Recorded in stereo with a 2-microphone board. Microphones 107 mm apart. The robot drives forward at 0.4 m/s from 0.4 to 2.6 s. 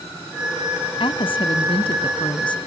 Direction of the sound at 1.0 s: 55° left (ahead or behind).